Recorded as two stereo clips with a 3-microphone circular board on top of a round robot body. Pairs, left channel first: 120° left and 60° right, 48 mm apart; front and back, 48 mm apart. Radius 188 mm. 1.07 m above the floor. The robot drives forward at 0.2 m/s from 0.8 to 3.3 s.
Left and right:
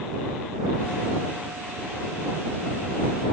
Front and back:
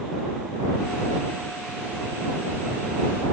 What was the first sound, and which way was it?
Only background noise.